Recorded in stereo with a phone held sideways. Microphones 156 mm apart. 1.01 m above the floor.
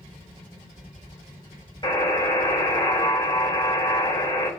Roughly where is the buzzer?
Left.